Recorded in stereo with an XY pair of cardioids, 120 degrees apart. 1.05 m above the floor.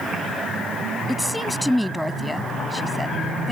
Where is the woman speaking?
Straight ahead.